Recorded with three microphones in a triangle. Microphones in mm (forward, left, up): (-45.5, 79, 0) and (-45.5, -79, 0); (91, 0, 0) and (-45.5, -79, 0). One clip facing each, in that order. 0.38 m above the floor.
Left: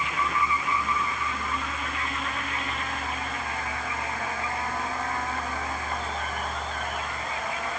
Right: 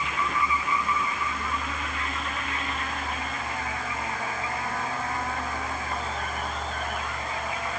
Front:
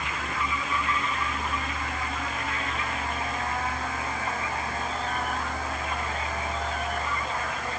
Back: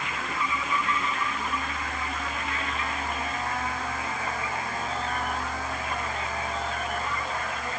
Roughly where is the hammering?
No hammering in this recording.